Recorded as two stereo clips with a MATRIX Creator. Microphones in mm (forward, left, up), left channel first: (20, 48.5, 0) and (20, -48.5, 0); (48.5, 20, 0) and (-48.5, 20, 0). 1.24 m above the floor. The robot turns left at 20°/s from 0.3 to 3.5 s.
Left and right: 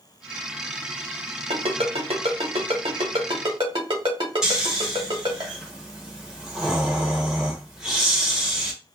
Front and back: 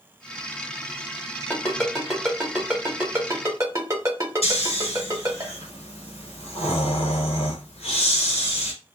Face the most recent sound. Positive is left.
turn(degrees=-5)